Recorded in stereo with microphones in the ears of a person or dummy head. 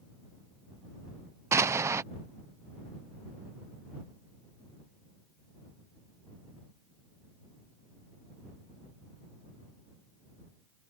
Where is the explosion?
20° right (ahead or behind).